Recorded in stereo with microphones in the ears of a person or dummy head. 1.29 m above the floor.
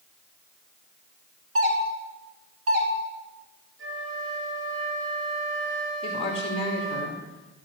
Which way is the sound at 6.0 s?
35° left (ahead or behind).